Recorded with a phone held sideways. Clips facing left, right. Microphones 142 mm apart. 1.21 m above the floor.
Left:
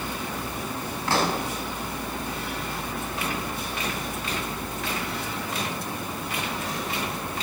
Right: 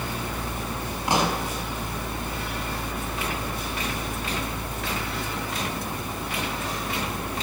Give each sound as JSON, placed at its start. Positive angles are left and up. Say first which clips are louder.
{"t": 0.0, "sound": "a fan", "louder": "right 1 dB", "side_deg": -70, "distance_m": 3.5}
{"t": 1.1, "sound": "a pop", "louder": "right 1 dB", "side_deg": -15, "distance_m": 4.5}